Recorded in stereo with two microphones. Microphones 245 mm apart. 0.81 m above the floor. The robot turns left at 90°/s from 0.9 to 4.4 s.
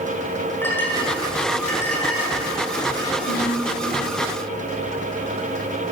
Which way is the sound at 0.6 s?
10° left (ahead or behind).